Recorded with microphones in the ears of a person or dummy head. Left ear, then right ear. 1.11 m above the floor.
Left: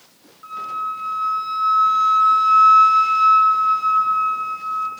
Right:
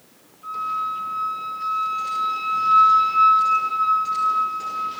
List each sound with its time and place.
0.4 s a flute: 55° left (ahead or behind), 0.8 m